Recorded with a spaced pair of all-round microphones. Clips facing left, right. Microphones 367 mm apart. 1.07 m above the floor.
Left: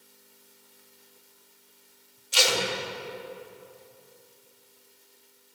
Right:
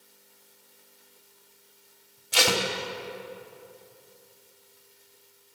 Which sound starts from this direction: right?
Tape being pulled, at 2.3 s.